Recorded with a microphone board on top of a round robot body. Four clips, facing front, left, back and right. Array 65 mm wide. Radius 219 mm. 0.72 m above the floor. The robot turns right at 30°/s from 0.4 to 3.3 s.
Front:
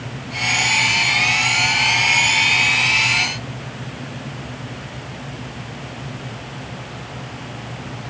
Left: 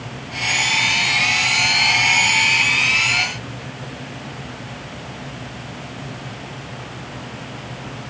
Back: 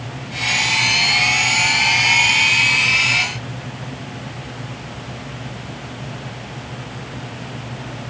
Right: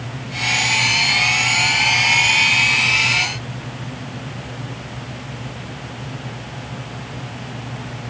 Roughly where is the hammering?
I don't hear hammering.